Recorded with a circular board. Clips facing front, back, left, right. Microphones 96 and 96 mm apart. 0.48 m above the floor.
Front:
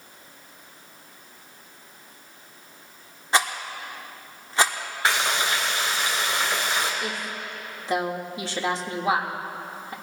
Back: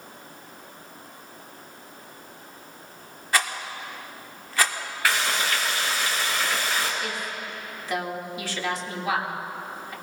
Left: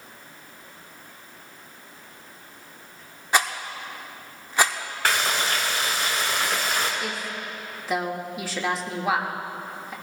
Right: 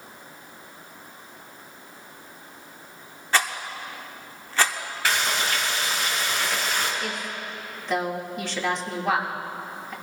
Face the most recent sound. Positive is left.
turn(degrees=10)